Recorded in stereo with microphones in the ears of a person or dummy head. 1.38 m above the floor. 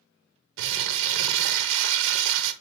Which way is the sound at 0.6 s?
70° right (ahead or behind).